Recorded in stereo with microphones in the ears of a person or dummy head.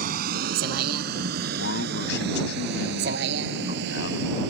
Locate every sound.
0.0 s a vehicle: 50° right (ahead or behind); by 4.5 s 65° right (ahead or behind)
1.6 s a man speaking: 65° left (ahead or behind)